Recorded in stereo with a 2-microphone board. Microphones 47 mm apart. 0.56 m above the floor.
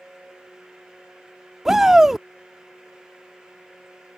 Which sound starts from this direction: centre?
A shout, at 1.6 s.